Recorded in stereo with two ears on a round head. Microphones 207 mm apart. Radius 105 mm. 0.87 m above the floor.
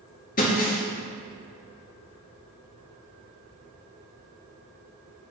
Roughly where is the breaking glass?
Left.